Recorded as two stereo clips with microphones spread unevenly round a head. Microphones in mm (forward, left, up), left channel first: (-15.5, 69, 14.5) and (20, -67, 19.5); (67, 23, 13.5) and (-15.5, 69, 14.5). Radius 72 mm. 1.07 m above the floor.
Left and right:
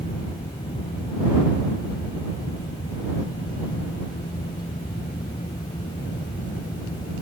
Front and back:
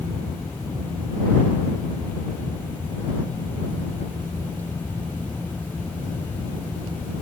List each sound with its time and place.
0.0 s a fan: 45° left